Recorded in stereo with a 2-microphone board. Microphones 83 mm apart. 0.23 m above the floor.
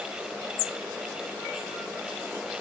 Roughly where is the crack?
I don't hear a crack.